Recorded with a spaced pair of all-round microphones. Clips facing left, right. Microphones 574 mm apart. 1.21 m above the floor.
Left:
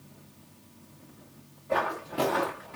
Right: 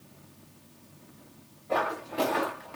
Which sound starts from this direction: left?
Footsteps, at 1.7 s.